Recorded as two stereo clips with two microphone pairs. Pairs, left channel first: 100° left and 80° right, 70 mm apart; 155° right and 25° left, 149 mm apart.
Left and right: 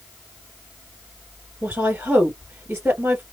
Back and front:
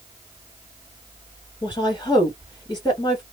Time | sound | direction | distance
1.6 | a woman speaking | 125° right | 1.9 m